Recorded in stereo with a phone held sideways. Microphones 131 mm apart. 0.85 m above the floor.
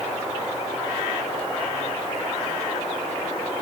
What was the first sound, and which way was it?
Only background noise.